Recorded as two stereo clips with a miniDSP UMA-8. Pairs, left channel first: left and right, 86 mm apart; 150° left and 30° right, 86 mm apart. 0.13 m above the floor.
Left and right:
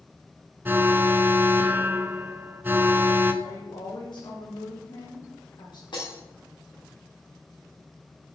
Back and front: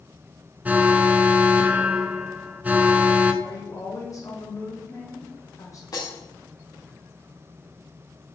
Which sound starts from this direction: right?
An alarm, at 0.7 s.